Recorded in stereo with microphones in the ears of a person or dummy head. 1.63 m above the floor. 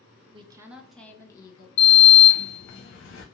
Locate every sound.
0.3 s a woman speaking: 35° right (ahead or behind), 0.6 m; by 1.7 s 25° left (ahead or behind), 0.9 m
1.8 s a sliding door: 60° left (ahead or behind), 0.6 m